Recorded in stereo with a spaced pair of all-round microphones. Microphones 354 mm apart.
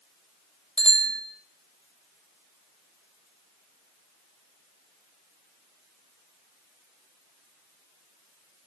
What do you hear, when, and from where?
0.8 s a bicycle bell: centre (ahead or behind), 5.5 m